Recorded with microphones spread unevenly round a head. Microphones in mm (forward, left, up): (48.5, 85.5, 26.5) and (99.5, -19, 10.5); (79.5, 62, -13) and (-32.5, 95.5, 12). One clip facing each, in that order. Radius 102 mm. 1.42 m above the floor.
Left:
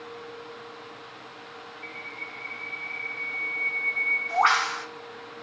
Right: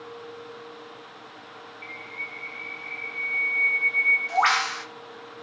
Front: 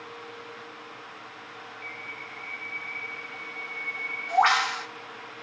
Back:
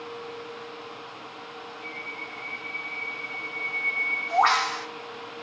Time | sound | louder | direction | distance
1.8 | a bird | even, back 3 dB | 70° right | 0.6 m